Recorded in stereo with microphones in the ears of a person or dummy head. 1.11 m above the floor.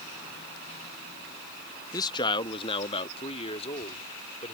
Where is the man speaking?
20° left (ahead or behind); by 4.5 s 35° left (ahead or behind).